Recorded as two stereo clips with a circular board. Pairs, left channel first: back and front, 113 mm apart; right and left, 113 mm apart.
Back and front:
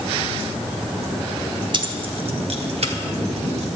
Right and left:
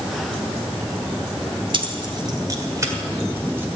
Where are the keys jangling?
45° left, 1.1 m; by 3.8 s 15° left, 1.8 m.